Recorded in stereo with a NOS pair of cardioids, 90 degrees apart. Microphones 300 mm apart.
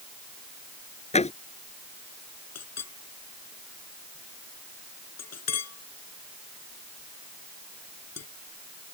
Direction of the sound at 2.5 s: 55° left.